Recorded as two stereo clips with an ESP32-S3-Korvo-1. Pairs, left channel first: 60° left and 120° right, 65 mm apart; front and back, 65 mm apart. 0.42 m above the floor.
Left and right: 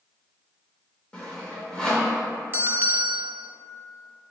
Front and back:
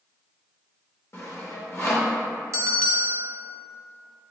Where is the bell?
170° right, 0.5 m.